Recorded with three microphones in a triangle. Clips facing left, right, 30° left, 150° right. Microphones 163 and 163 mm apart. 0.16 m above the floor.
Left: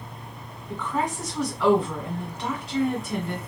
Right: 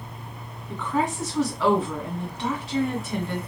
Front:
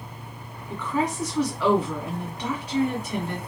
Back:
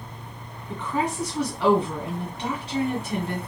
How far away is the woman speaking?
About 1.8 m.